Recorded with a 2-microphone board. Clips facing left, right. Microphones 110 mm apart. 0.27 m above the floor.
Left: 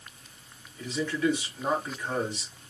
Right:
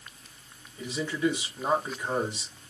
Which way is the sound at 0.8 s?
10° right (ahead or behind).